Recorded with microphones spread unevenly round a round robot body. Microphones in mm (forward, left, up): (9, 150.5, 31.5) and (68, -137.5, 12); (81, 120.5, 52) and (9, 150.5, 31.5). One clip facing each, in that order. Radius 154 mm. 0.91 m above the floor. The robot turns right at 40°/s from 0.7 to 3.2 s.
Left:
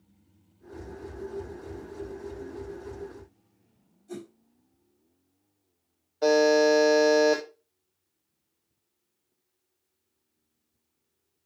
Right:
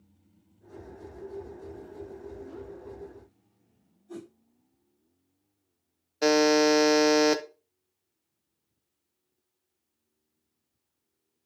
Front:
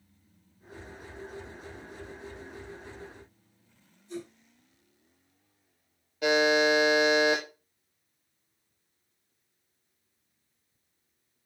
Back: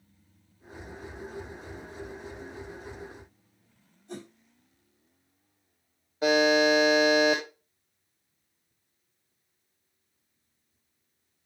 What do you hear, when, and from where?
4.1 s a whoosh: 140° left, 5 m
6.2 s a buzzer: 120° right, 0.9 m